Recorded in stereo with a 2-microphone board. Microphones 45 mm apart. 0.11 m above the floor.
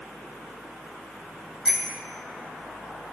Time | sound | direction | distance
1.6 | a bicycle bell | 15° right (ahead or behind) | 3.5 m